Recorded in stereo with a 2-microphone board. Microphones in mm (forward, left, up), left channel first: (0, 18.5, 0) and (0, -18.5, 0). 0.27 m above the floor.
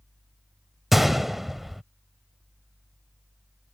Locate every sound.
0.9 s a gunshot: 5° right (ahead or behind)